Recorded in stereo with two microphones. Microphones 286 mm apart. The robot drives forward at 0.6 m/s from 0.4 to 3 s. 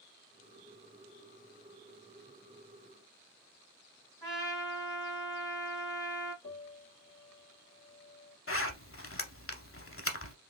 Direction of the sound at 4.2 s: 15° left (ahead or behind).